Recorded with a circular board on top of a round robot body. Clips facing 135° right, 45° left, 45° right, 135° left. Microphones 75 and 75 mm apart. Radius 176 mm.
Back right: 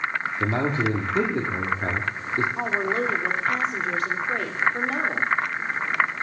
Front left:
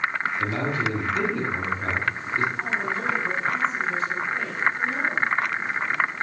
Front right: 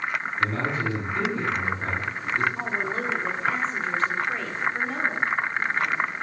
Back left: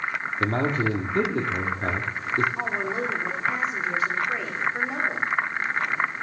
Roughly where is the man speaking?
Behind.